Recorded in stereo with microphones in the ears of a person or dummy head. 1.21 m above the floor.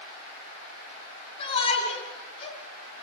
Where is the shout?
30° left (ahead or behind), 8 m.